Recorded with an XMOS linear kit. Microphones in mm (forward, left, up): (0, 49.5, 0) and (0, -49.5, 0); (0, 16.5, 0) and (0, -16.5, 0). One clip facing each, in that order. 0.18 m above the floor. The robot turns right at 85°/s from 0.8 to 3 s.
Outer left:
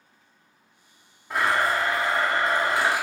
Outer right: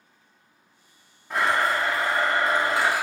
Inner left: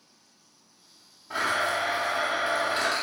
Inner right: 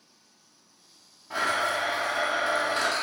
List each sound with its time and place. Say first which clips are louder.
1.3 s a blender: even, even; centre (ahead or behind), 0.9 m; by 3.0 s 15° left (ahead or behind), 0.9 m